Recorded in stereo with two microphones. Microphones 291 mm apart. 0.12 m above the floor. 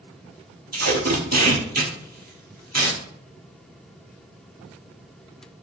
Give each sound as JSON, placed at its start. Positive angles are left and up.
{"t": 0.7, "sound": "tape being pulled", "side_deg": -65, "distance_m": 0.9}